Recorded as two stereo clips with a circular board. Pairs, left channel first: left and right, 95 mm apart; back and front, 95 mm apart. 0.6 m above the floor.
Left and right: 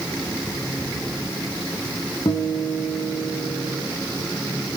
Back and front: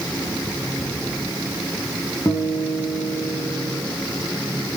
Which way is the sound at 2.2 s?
125° left.